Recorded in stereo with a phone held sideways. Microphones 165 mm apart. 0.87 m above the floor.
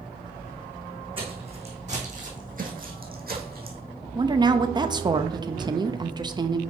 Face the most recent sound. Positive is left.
turn(degrees=-25)  # may be behind; listen again after turning